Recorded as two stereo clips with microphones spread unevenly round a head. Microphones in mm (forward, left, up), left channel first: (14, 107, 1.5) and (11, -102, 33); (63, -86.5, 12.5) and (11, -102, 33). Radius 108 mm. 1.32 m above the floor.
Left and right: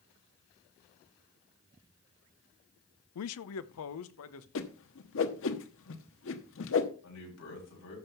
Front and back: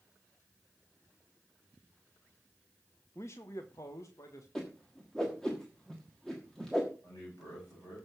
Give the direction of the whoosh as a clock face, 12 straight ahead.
8 o'clock.